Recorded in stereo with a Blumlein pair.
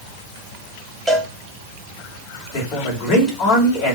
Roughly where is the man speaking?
Ahead left.